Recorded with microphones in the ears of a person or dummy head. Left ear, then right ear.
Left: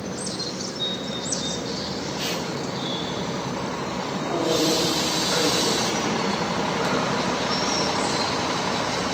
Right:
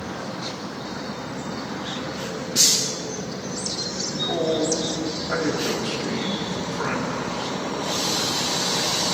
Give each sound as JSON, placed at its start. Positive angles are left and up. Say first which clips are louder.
{"t": 4.1, "sound": "a man speaking", "louder": "even", "side_deg": -20, "distance_m": 3.0}